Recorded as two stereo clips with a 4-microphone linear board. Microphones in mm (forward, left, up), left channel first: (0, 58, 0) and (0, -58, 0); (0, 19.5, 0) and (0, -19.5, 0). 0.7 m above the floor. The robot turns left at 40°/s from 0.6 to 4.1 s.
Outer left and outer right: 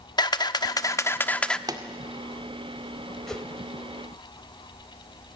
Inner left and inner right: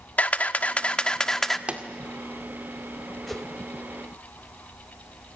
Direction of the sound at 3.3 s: 5° left (ahead or behind).